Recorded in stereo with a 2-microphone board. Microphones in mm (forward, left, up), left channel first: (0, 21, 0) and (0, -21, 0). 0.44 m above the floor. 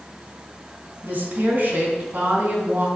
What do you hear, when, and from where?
1.0 s a woman speaking: 40° right (ahead or behind), 3.5 m